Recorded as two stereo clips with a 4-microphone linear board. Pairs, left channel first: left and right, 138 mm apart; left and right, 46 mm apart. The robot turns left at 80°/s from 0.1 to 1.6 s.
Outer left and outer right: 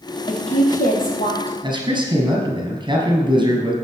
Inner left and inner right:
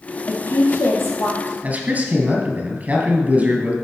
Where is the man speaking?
35° right (ahead or behind), 2 m.